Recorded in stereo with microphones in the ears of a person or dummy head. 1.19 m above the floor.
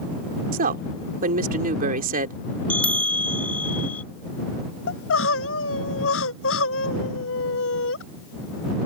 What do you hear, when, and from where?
0.5 s a woman speaking: 50° right (ahead or behind)
2.7 s a bell: 10° left (ahead or behind)
4.9 s crying: 75° left (ahead or behind)